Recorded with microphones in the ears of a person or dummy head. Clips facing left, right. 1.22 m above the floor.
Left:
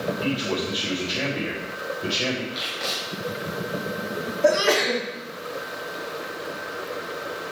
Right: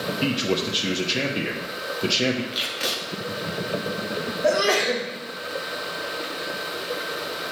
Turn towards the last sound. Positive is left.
turn(degrees=80)